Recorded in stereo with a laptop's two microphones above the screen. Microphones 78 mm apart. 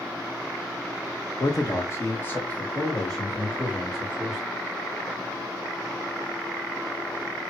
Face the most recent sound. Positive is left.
turn(degrees=-5)  # may be behind; listen again after turning